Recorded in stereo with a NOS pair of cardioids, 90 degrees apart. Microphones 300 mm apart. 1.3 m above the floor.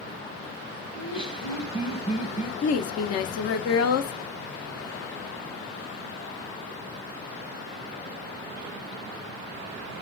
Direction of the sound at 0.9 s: 20° left.